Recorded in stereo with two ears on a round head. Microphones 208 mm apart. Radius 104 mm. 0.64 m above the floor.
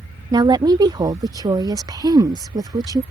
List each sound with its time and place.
0.3 s a woman speaking: 15° right (ahead or behind)